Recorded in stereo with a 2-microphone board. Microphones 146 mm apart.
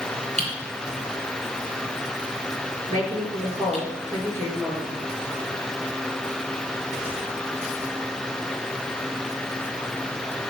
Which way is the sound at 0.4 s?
50° right (ahead or behind).